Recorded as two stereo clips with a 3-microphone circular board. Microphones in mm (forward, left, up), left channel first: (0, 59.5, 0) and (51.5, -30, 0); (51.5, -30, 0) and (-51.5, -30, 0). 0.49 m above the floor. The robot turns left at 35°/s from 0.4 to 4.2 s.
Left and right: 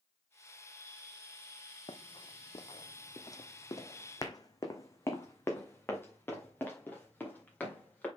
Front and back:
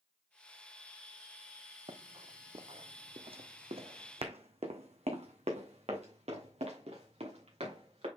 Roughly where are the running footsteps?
Behind left.